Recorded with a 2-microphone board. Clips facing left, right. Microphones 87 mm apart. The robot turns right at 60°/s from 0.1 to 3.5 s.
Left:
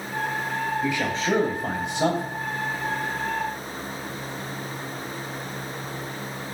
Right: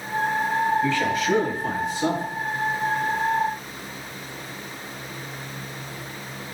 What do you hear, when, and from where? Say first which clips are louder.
0.8 s a man speaking: right 3 dB; 10° left, 3.5 m; by 2.2 s 95° left, 3.5 m